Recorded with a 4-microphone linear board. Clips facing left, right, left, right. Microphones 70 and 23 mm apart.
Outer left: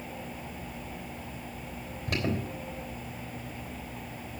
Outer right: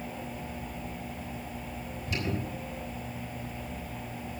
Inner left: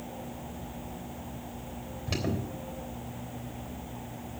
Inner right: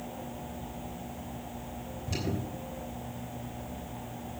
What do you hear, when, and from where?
2.1 s an alarm: 65° left (ahead or behind), 3.5 m